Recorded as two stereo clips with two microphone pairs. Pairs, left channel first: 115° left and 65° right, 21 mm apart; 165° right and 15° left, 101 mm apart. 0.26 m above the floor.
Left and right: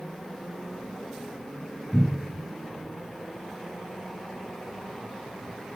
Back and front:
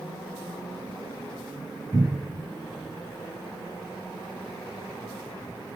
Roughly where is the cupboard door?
Ahead left.